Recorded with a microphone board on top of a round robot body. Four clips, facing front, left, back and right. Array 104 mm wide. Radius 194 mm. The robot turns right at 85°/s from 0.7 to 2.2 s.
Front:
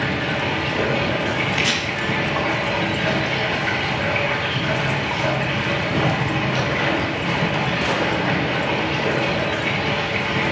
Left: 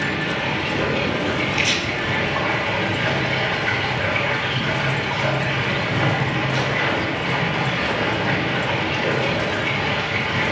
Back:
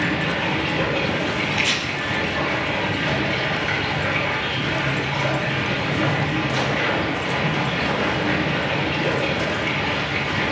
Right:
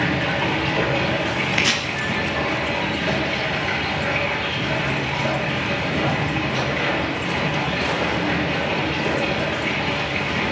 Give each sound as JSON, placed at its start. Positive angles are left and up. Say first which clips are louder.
{"t": 0.0, "sound": "running water", "louder": "right 2 dB, even", "azimuth_deg": -90, "distance_m": 3.5}
{"t": 1.5, "sound": "chopping", "louder": "right 1 dB, front 2 dB", "azimuth_deg": -75, "distance_m": 0.9}